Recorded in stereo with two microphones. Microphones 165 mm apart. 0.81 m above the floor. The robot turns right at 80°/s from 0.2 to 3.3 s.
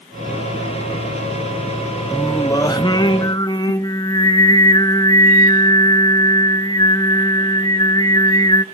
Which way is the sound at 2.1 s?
10° left (ahead or behind).